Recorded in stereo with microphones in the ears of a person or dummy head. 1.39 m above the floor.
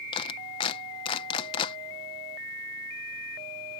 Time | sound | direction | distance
0.1 | a clap | 30° left (ahead or behind) | ?